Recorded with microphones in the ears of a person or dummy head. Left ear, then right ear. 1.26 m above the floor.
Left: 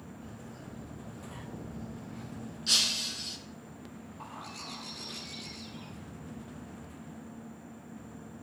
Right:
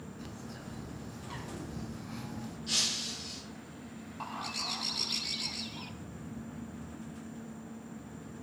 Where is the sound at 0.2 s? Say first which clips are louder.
Right 3 dB; 70° right (ahead or behind), 4 m.